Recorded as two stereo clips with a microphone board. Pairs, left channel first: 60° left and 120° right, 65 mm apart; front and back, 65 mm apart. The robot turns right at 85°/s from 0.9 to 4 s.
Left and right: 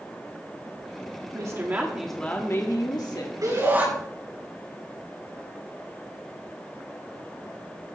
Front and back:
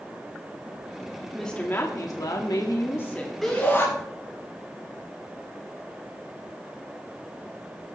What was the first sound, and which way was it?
A woman speaking, 90° right.